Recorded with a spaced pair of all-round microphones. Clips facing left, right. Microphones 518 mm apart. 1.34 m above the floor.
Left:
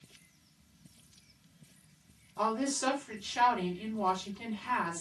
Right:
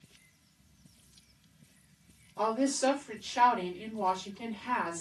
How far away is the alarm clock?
No alarm clock in this recording.